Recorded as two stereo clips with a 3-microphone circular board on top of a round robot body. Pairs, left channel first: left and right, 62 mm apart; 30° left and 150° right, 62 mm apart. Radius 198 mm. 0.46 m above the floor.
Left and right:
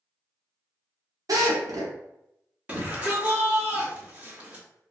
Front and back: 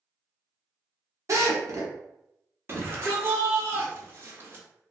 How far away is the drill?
About 0.7 m.